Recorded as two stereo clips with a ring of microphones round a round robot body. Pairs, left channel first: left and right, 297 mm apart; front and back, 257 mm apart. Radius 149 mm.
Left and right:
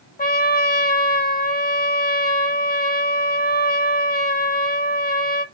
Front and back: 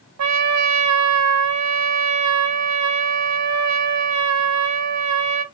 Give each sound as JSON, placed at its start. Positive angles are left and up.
{"t": 0.2, "sound": "a trumpet", "azimuth_deg": 155, "distance_m": 0.6}